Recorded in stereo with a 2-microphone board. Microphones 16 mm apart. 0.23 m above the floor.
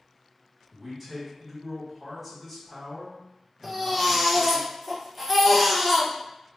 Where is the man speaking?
10° right (ahead or behind), 2.0 m.